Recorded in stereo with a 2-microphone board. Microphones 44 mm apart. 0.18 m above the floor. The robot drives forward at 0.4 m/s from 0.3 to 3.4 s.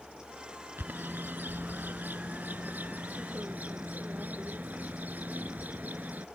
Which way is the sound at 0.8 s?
50° right (ahead or behind).